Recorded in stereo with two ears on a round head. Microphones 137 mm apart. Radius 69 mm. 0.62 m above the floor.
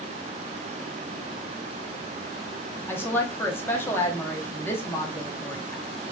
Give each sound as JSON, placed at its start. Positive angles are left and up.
{"t": 2.9, "sound": "a woman speaking", "side_deg": 15, "distance_m": 0.7}